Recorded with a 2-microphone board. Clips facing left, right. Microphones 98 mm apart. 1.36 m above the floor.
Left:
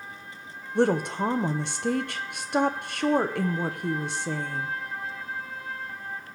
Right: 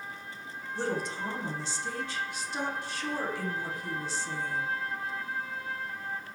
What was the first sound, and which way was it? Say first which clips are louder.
A woman speaking: left 10 dB; 60° left (ahead or behind).